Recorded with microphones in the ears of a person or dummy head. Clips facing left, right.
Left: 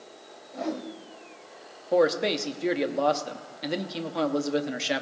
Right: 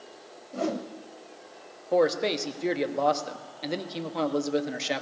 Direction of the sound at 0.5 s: 50° right (ahead or behind).